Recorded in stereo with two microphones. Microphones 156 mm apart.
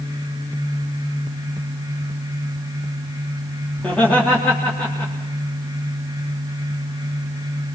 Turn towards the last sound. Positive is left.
turn(degrees=10)  # may be behind; listen again after turning